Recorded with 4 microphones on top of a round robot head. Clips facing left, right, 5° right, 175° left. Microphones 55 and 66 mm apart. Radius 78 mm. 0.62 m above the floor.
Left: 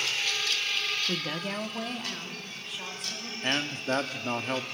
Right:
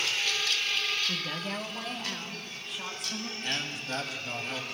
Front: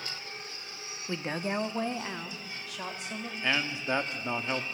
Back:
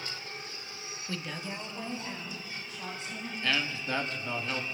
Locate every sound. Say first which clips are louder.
1.1 s a woman speaking: left 2 dB, front 6 dB; 50° left, 0.7 m; by 3.3 s straight ahead, 3 m
3.4 s a man speaking: left 7 dB, front 1 dB; 60° left, 1.4 m